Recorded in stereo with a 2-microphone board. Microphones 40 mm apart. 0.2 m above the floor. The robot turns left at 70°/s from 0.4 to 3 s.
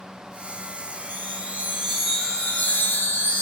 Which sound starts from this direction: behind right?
A chime, at 1.1 s.